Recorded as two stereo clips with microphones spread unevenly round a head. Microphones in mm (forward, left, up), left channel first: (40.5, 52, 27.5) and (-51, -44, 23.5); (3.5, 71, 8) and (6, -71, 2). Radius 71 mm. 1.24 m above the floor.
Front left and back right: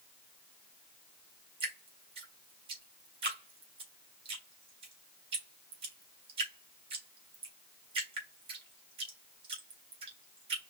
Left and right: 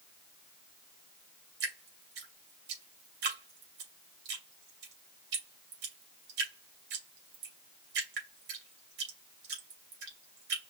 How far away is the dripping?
About 2.5 m.